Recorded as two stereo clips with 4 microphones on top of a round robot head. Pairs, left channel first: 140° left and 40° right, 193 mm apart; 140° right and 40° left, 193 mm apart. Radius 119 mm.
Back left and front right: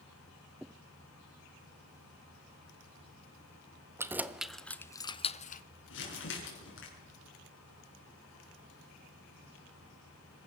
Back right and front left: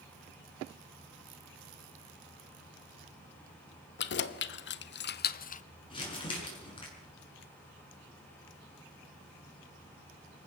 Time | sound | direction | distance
4.0 | keys jangling | 120° right | 1.1 m
5.9 | crumpling | 155° left | 6.5 m